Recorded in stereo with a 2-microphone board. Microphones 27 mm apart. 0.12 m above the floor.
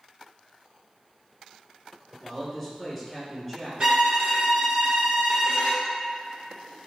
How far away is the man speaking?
About 1.3 m.